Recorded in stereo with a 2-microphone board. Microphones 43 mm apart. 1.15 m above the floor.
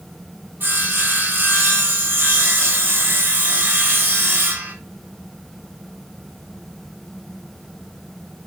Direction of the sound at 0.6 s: 45° right (ahead or behind).